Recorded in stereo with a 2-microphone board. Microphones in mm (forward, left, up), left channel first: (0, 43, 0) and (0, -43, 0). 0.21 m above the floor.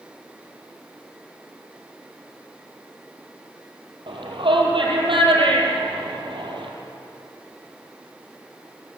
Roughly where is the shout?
Right.